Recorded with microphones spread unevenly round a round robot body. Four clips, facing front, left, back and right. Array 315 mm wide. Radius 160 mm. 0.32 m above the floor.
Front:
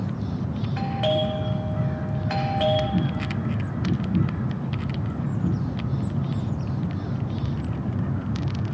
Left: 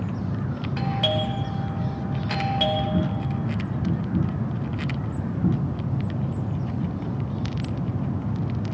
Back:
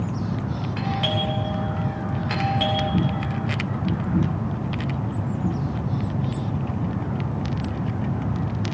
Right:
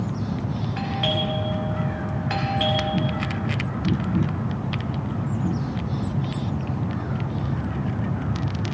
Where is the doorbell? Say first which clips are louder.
Left 1 dB, front 3 dB; 25° left, 2.0 m.